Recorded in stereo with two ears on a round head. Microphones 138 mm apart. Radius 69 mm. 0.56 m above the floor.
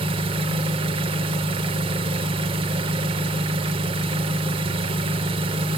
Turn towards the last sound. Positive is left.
turn(degrees=-35)  # may be behind; listen again after turning